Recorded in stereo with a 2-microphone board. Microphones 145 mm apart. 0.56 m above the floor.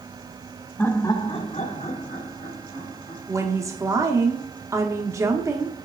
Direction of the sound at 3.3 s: 20° right (ahead or behind).